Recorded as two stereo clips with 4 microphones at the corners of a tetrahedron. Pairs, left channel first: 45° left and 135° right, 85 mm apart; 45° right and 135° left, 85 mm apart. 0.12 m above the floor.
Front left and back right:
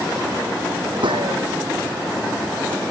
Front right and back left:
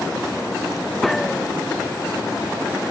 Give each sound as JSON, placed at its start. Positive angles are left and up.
{"t": 1.0, "sound": "a gunshot", "azimuth_deg": -130}